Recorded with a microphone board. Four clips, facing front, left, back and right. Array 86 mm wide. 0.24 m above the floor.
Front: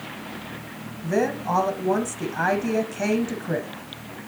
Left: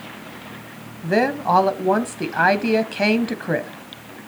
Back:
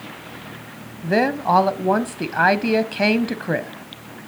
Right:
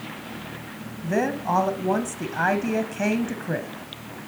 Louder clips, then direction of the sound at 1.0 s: Left 5 dB, back 5 dB; 140° left.